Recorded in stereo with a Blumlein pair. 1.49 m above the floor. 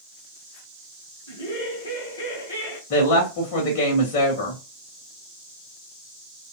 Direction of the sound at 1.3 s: 55° left.